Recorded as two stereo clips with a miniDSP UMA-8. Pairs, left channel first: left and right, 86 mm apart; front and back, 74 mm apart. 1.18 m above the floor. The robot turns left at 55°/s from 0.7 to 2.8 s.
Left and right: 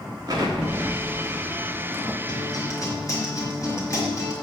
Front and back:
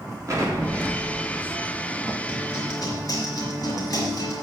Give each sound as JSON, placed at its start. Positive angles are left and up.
{"t": 0.3, "sound": "an explosion", "azimuth_deg": -135, "distance_m": 2.0}
{"t": 2.3, "sound": "a guitar", "azimuth_deg": 70, "distance_m": 3.5}